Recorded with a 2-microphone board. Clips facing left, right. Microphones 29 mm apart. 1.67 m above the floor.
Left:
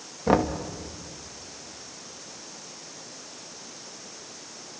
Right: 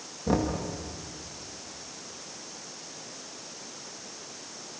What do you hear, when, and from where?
0.3 s knocking: 35° left (ahead or behind), 1.9 m